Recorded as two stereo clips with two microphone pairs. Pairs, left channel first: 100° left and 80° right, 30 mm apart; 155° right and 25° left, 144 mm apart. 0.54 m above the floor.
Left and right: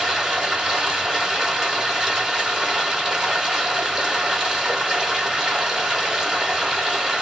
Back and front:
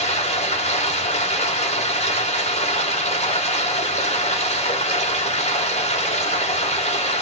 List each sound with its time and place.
0.0 s running water: 135° right, 1.6 m